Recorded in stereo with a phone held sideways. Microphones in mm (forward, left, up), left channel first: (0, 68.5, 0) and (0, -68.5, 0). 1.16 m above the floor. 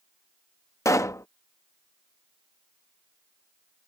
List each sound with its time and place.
0.8 s a pop: 20° left (ahead or behind)